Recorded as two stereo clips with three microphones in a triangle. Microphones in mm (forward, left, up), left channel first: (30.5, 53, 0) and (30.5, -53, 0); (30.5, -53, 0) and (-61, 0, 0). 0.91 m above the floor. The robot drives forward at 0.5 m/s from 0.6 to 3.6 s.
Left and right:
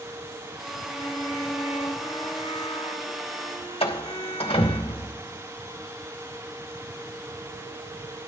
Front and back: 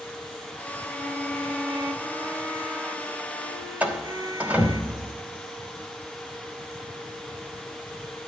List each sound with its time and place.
0.9 s a violin: 65° left, 2.5 m; by 4.8 s 95° left, 2.5 m
3.8 s a door slam: 75° left, 2.5 m